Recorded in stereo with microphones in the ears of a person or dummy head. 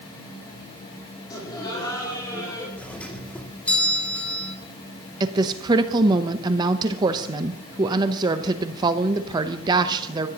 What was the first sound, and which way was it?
Laughter, 20° left (ahead or behind).